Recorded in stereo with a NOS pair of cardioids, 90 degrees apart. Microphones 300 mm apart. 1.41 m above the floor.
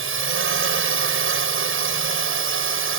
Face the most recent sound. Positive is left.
turn(degrees=-45)